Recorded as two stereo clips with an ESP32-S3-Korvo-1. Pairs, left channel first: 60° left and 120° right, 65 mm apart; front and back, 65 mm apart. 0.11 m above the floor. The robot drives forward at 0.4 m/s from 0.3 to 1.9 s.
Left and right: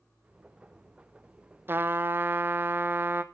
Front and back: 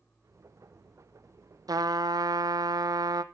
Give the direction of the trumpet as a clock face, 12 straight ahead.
6 o'clock.